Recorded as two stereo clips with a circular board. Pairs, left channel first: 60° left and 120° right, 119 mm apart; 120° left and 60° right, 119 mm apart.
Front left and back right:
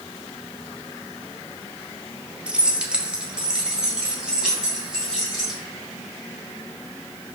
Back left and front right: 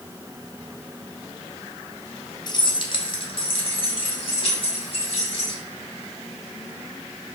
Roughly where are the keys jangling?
Behind.